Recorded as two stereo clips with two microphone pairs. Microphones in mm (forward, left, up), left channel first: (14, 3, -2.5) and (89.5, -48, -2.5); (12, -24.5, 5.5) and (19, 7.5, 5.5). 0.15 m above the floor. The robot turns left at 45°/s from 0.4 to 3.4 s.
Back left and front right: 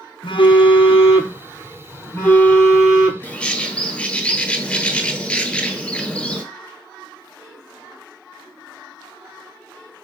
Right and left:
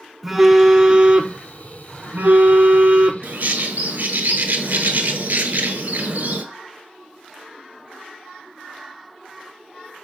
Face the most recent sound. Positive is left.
turn(degrees=65)